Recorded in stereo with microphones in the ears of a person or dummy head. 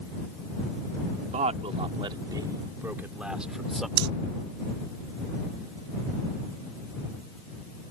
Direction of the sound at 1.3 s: 35° right (ahead or behind).